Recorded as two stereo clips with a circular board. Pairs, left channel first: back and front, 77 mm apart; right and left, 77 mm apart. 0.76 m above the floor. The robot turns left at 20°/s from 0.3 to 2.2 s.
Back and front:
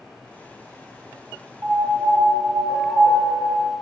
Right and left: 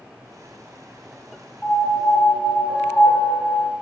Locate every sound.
1.6 s a piano: 15° right, 0.8 m; by 3.7 s 25° right, 0.8 m